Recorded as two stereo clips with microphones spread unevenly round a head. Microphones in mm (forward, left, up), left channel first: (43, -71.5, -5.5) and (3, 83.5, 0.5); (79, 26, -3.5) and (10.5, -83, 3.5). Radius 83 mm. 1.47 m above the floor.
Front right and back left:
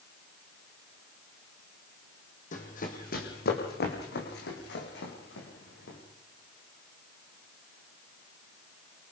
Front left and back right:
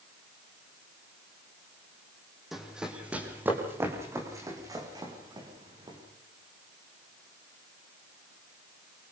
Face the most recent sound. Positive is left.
turn(degrees=-70)